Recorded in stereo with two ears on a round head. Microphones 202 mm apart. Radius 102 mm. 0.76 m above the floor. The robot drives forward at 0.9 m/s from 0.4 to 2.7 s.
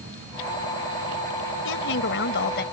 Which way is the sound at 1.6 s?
65° left (ahead or behind).